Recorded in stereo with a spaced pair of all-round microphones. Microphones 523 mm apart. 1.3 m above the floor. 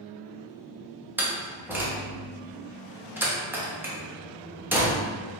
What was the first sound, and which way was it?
A door slam, 5° right (ahead or behind).